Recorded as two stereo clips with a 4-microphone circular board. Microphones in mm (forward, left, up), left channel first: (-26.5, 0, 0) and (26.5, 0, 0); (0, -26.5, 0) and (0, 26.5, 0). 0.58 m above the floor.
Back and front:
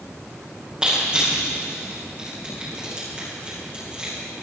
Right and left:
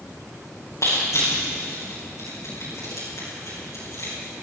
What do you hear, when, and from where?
0.8 s crushing: 70° right, 8 m